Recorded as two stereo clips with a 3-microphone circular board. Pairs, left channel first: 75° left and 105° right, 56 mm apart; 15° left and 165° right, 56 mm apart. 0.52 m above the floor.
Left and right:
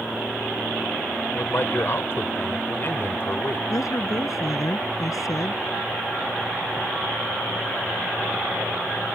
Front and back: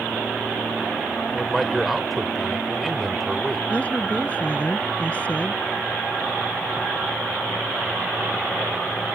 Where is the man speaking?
105° left.